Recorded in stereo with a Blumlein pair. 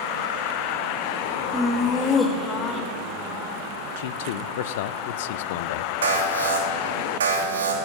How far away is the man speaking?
About 0.6 m.